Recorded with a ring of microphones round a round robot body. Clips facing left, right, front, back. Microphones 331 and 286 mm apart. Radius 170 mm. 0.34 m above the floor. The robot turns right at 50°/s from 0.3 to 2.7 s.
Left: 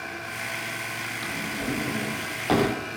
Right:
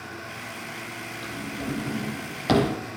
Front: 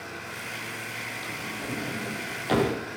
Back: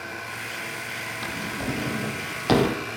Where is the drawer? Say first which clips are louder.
Left 1 dB, back 7 dB; 160° left, 5.5 m; by 2.8 s 125° right, 5.5 m.